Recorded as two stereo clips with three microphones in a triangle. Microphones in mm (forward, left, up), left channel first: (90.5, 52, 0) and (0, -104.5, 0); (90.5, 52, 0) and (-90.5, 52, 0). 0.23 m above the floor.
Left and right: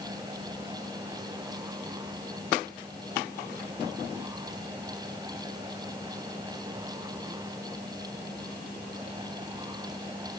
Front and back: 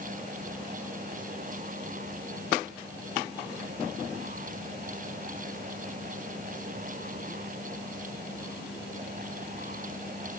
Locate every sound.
Only background noise.